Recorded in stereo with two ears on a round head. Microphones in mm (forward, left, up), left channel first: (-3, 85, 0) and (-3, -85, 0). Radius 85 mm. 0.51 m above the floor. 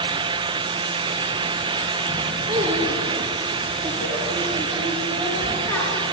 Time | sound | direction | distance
2.5 | a child speaking | 15° right (ahead or behind) | 5 m